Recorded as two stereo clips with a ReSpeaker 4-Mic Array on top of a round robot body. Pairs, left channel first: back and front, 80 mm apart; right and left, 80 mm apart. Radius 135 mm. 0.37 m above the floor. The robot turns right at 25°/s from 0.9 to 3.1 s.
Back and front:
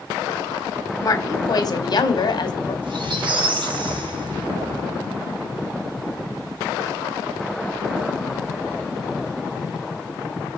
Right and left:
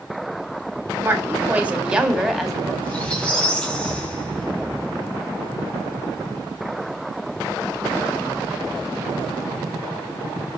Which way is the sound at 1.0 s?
145° left.